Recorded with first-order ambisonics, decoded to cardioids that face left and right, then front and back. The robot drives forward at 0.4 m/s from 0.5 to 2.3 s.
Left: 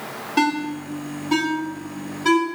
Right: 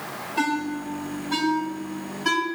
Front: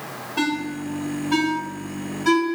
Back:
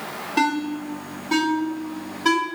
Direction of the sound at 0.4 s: 120° left.